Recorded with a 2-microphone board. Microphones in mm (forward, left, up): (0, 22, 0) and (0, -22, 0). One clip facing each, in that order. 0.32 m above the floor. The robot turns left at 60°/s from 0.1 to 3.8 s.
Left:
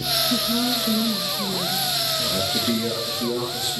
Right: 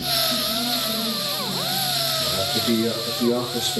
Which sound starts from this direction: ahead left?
A man speaking, at 2.2 s.